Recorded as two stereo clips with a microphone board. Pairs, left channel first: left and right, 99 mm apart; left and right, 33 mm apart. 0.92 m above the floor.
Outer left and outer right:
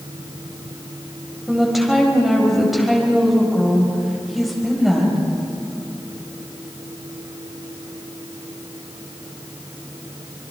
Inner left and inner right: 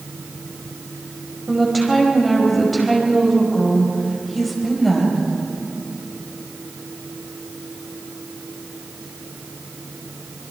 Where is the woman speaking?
Centre (ahead or behind), 5 m.